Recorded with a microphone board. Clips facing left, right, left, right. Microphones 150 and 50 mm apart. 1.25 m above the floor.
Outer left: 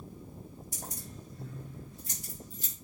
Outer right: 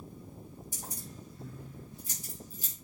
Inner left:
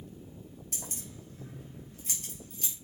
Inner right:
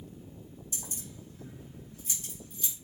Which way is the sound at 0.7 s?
80° left.